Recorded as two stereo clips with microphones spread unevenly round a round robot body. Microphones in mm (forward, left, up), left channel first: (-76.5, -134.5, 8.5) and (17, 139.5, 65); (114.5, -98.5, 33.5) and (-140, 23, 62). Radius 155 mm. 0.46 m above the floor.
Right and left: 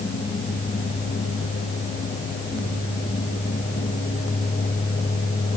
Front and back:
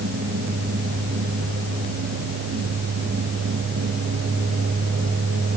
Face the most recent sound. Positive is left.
No sound to turn to.